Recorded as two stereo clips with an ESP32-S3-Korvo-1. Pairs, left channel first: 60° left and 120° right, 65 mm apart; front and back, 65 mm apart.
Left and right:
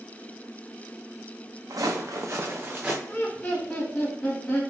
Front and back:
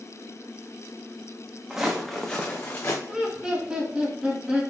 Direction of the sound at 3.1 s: 115° left.